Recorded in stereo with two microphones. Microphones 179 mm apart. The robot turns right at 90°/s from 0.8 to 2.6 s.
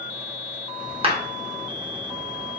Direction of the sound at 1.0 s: 30° right (ahead or behind).